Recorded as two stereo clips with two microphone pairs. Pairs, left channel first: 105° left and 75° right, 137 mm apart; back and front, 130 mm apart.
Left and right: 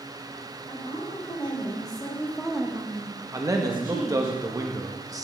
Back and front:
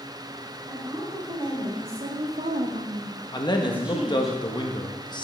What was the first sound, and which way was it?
A woman speaking, 55° left.